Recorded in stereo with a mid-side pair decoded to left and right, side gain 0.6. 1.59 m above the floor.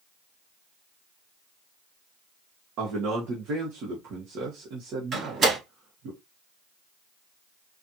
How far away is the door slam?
About 1.8 m.